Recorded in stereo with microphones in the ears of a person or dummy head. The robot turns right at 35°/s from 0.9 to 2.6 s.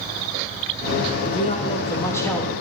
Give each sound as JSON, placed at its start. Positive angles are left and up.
{"t": 1.2, "sound": "a man speaking", "azimuth_deg": 135, "distance_m": 0.9}